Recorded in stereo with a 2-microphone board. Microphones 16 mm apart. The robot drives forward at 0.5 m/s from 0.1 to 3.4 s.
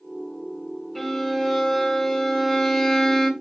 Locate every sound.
0.9 s a violin: 15° left (ahead or behind), 1.9 m; by 3.3 s 25° left (ahead or behind), 1.3 m